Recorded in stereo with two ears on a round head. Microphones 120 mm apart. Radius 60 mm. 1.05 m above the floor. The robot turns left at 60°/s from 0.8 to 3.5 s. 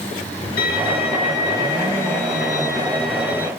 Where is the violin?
140° left, 1.9 m; by 3.5 s 20° right, 1.9 m.